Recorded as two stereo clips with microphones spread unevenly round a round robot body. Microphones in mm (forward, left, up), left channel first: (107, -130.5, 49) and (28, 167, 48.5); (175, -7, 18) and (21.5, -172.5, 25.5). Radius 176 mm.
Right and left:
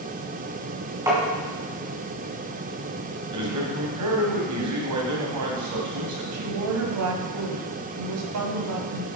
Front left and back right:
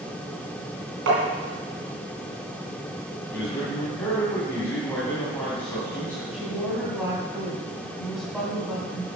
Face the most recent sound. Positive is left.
turn(degrees=140)